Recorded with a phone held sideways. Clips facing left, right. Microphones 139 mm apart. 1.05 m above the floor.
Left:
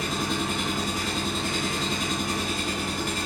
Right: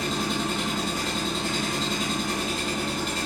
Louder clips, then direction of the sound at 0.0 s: Right 1 dB; 25° right (ahead or behind).